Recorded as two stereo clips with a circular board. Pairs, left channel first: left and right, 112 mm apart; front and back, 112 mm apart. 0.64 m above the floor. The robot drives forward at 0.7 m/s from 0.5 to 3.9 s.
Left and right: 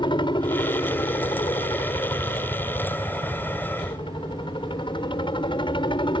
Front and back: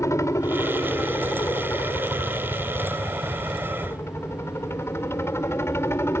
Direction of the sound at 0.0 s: 60° left.